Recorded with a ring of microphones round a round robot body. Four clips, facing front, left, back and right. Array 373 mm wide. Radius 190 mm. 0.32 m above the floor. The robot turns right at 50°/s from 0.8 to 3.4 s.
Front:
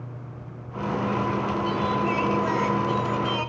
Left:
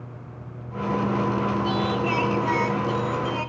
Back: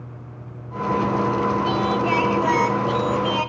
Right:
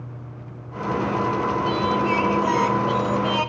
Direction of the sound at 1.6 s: 150° left.